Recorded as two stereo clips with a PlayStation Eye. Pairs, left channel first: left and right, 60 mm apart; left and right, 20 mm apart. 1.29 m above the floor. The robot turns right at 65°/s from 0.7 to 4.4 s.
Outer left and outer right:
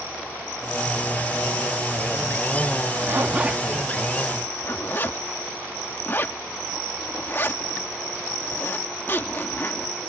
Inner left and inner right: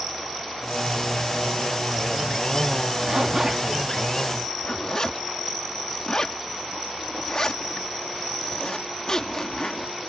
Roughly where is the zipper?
Right.